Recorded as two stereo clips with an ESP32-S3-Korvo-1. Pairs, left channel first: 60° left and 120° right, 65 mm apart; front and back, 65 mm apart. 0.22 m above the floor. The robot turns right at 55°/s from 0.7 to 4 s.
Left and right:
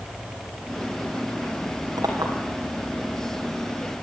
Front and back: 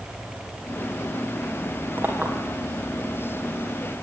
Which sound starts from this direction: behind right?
A clink, at 2.0 s.